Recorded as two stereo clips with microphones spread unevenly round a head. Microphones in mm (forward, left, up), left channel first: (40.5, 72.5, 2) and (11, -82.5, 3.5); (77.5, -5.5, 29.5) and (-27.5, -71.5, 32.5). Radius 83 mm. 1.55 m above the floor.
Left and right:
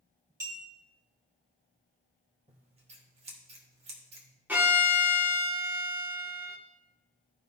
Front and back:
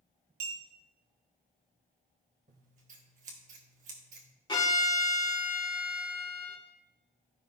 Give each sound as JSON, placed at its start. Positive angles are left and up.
{"t": 0.4, "sound": "a clink", "azimuth_deg": -175, "distance_m": 2.0}
{"t": 2.5, "sound": "scissors", "azimuth_deg": -150, "distance_m": 1.5}
{"t": 4.5, "sound": "a violin", "azimuth_deg": -20, "distance_m": 2.5}